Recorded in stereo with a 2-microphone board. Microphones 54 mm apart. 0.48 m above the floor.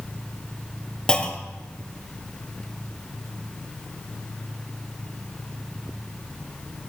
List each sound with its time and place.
1.1 s a clunk: 15° left (ahead or behind), 1.6 m